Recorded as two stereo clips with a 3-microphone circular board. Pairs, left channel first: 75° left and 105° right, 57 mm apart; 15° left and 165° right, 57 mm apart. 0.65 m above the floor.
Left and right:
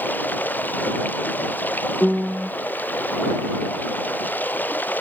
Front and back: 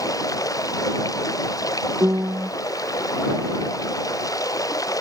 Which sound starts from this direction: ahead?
Running water, at 0.0 s.